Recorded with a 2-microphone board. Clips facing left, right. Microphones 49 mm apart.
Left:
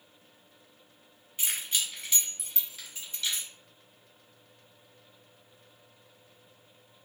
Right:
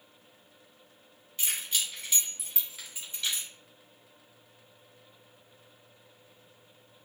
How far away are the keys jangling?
About 1.1 m.